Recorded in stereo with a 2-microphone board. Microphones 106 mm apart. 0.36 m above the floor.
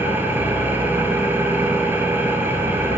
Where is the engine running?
20° right (ahead or behind), 1.9 m.